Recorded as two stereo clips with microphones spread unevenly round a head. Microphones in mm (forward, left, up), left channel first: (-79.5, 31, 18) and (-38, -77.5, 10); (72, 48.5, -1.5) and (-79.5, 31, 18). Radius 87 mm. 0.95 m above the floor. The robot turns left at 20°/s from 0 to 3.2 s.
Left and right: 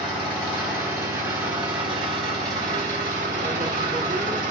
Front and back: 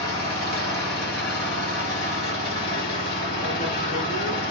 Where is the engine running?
25° left, 1.6 m; by 4.5 s 40° right, 1.6 m.